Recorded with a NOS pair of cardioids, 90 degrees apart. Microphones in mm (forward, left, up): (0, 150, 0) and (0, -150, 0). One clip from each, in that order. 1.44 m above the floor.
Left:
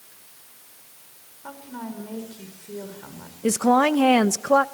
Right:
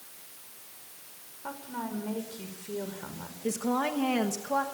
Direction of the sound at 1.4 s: 5° right.